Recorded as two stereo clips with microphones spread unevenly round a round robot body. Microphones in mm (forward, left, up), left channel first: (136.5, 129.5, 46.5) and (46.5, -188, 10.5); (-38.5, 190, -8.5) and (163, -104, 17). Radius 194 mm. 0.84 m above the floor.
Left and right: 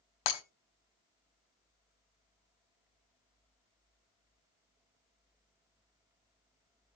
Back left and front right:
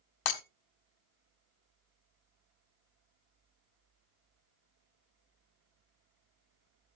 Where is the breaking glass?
95° left, 1.2 m.